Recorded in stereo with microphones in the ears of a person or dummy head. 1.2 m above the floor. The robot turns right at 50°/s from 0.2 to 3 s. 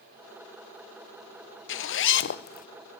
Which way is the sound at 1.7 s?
80° left.